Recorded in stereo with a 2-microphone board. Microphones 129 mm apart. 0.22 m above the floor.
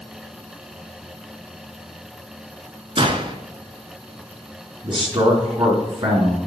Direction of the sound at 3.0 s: 45° right (ahead or behind).